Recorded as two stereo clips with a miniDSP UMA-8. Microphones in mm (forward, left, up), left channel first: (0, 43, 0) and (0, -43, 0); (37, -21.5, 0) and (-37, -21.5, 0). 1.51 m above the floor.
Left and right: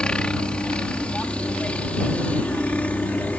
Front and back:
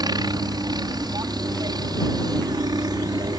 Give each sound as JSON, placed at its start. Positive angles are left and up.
{"t": 0.0, "sound": "a helicopter", "azimuth_deg": 170}